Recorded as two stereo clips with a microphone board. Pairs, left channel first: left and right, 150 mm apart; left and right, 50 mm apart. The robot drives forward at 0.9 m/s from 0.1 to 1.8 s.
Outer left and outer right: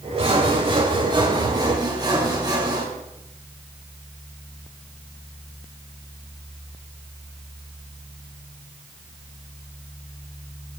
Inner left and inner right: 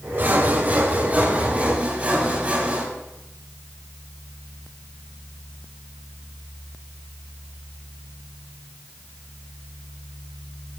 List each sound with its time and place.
0.2 s sawing: 45° right (ahead or behind), 2.5 m; by 2.9 s 30° right (ahead or behind), 3.5 m